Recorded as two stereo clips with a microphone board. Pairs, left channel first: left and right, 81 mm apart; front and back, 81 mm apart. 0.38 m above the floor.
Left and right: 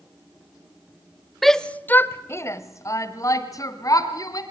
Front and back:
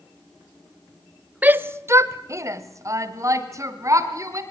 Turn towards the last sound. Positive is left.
turn(degrees=130)